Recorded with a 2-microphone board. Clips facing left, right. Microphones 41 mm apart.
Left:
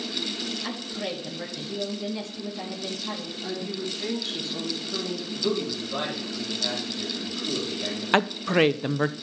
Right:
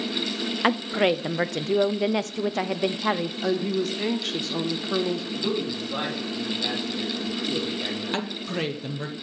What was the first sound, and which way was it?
A woman speaking, 65° right (ahead or behind).